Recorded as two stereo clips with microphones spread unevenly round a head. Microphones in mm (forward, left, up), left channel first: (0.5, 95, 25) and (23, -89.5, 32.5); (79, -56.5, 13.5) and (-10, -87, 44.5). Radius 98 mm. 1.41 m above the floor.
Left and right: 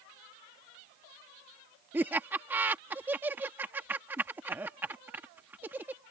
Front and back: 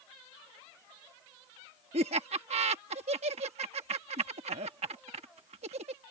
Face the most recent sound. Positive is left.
turn(degrees=-165)